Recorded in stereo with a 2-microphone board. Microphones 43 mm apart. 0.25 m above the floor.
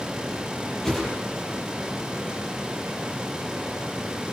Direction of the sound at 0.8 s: 10° left (ahead or behind).